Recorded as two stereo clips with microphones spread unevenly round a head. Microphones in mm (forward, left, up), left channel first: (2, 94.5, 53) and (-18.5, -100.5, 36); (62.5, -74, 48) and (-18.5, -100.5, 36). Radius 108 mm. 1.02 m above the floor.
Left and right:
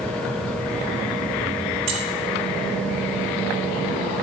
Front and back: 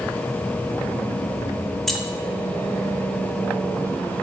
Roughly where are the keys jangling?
Ahead right.